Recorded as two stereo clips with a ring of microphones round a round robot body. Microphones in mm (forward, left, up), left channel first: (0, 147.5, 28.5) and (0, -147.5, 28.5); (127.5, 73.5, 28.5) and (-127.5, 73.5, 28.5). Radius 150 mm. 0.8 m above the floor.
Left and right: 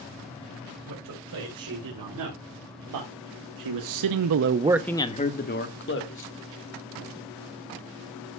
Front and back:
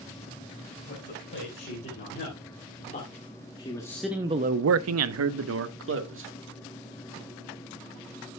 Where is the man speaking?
60° right, 4.5 m; by 6.3 s 140° left, 2 m.